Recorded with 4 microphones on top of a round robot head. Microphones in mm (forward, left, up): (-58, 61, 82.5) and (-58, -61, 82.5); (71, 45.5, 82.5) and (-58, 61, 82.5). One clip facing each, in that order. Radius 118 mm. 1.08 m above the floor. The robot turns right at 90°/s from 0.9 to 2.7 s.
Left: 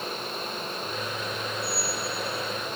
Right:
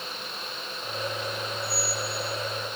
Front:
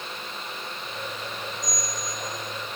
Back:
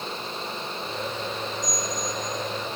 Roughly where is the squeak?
Ahead.